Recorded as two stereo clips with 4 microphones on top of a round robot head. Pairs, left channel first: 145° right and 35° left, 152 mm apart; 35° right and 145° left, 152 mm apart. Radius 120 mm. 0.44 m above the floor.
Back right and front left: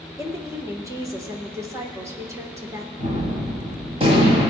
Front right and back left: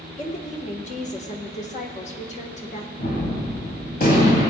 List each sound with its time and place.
0.2 s a woman speaking: 25° right, 1.7 m
3.0 s a gunshot: 15° right, 3.5 m